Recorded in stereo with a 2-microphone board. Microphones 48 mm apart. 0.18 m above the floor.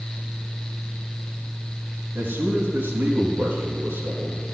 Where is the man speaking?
55° right (ahead or behind), 2.5 m.